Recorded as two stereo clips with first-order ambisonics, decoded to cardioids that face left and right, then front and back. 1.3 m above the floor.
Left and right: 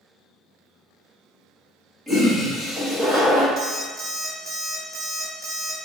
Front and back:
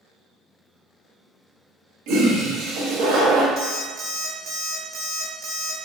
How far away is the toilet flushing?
About 1.2 m.